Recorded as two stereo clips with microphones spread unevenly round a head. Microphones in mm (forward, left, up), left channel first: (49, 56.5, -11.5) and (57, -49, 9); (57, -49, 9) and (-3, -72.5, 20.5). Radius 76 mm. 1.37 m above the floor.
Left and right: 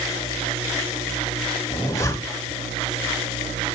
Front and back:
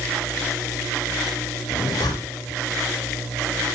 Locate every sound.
1.7 s a zipper: 35° left, 2.0 m